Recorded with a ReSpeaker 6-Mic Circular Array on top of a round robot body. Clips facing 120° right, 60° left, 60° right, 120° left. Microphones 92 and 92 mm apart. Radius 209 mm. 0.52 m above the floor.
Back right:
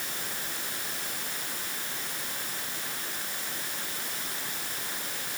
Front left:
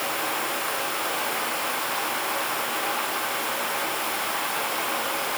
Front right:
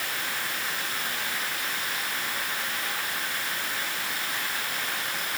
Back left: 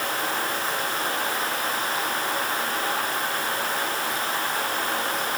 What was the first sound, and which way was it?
Running water, 70° left.